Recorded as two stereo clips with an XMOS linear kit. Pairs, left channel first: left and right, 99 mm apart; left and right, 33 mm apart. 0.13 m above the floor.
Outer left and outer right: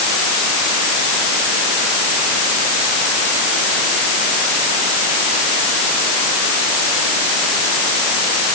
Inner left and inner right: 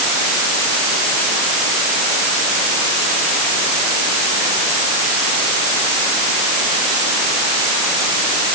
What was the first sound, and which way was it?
Only background noise.